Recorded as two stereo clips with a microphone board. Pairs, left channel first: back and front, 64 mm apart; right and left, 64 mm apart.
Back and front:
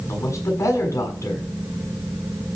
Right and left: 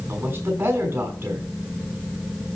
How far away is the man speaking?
About 7.5 m.